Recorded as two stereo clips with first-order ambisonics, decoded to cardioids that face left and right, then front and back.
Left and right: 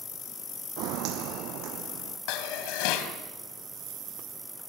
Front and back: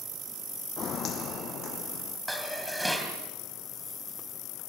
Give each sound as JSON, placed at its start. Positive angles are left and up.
{"t": 0.8, "sound": "footsteps", "azimuth_deg": -60, "distance_m": 1.4}
{"t": 2.3, "sound": "dishes clattering", "azimuth_deg": 90, "distance_m": 2.5}